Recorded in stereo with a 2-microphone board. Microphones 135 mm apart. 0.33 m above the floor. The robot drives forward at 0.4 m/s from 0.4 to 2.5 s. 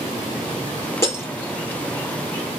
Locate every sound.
1.0 s breaking glass: 20° left (ahead or behind), 4.5 m